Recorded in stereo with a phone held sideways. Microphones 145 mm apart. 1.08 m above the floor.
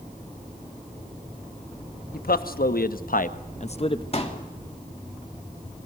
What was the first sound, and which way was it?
A man speaking, 85° left.